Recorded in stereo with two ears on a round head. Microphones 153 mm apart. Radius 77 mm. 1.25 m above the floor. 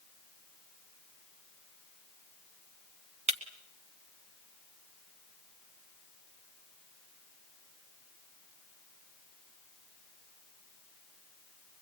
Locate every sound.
3.3 s breaking glass: 40° right (ahead or behind), 1.8 m